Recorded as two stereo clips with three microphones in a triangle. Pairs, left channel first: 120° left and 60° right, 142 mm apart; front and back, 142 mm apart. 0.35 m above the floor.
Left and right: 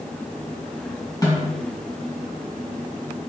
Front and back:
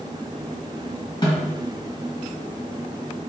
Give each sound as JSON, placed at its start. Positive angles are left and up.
{"t": 1.2, "sound": "a snare drum", "azimuth_deg": 55, "distance_m": 2.0}